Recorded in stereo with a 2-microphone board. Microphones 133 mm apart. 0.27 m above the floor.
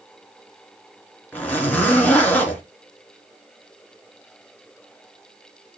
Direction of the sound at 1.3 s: 10° left (ahead or behind).